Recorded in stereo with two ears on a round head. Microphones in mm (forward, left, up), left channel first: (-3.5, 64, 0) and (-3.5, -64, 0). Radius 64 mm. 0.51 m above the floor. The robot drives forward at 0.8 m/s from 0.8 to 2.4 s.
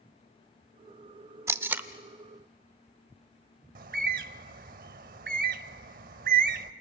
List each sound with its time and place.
1.5 s tape being pulled: 20° right (ahead or behind), 0.5 m; by 1.9 s 10° right (ahead or behind), 0.8 m
3.8 s a bird: 65° right (ahead or behind), 0.6 m